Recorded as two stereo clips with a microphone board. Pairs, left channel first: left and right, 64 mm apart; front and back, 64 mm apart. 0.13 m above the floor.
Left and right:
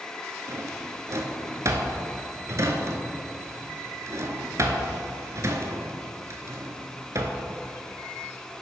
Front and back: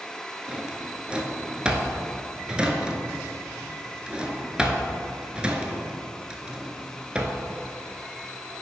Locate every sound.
0.5 s a drawer: 110° right, 0.7 m